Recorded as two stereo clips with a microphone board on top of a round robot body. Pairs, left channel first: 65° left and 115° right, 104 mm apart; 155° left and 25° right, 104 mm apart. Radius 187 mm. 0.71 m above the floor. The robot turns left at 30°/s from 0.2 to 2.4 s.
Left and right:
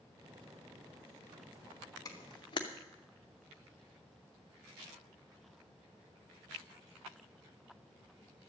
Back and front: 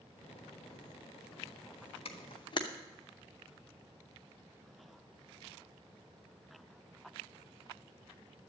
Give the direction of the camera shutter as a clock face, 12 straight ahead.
8 o'clock.